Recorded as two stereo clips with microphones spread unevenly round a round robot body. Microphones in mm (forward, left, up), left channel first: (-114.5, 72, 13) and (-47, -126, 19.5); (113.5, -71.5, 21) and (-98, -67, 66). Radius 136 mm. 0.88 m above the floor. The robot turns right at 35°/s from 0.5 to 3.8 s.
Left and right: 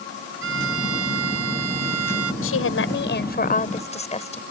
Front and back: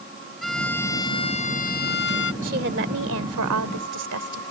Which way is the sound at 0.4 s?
90° right.